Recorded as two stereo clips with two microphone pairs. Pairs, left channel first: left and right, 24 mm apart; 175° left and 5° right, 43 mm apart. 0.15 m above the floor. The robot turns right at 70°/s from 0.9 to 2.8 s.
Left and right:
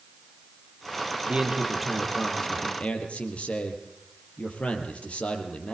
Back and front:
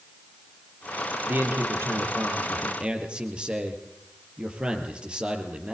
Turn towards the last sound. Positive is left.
turn(degrees=60)